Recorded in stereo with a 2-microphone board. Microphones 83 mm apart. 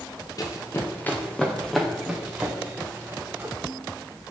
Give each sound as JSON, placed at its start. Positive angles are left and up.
{"t": 0.4, "sound": "running footsteps", "side_deg": 45, "distance_m": 2.5}